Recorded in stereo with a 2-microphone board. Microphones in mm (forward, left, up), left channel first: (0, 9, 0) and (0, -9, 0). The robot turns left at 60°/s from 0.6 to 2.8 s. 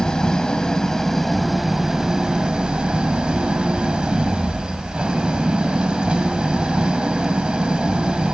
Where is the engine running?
50° left, 1.5 m; by 8.3 s 80° right, 1.5 m.